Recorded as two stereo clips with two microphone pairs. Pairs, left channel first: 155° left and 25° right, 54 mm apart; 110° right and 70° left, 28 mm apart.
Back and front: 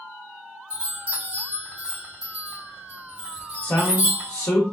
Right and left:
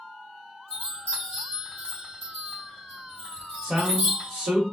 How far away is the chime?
About 2 m.